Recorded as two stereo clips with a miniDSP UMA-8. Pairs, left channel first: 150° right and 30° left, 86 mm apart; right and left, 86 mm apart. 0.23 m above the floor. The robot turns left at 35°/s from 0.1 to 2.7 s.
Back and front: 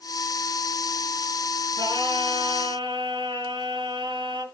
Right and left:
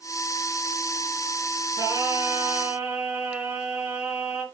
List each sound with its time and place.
1.8 s singing: 50° left, 3.5 m; by 4.5 s 15° left, 3.5 m